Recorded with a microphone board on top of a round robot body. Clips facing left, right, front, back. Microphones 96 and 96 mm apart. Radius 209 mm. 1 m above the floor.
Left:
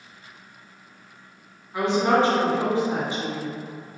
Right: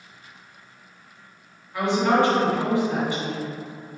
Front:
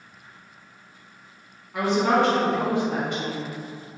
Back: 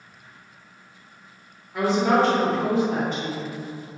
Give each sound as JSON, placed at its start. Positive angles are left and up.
{"t": 1.7, "sound": "a woman speaking", "azimuth_deg": 20, "distance_m": 1.9}